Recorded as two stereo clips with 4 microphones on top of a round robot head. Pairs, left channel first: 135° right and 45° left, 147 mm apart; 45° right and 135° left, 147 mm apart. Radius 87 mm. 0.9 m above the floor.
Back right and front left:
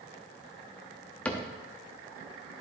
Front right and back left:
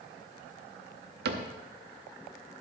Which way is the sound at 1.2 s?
140° left.